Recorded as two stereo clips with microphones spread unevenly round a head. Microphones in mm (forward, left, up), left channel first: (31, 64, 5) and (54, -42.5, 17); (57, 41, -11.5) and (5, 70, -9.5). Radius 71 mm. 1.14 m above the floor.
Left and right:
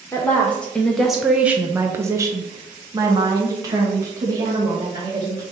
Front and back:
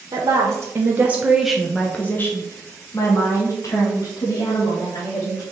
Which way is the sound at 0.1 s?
170° left.